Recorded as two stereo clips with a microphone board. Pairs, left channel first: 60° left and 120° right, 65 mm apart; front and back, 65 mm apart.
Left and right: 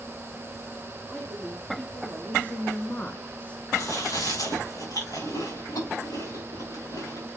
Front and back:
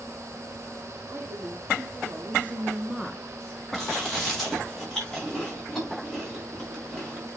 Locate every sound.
1.1 s a woman speaking: 135° left, 3.5 m; by 3.6 s 15° left, 1.2 m
3.7 s chewing: 85° left, 5.5 m